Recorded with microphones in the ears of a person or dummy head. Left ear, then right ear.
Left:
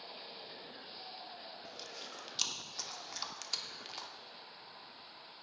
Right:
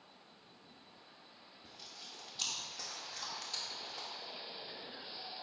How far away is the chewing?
About 0.9 m.